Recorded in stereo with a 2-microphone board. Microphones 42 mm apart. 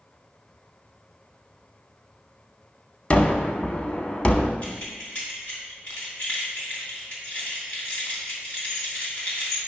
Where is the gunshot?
30° left (ahead or behind), 0.8 m.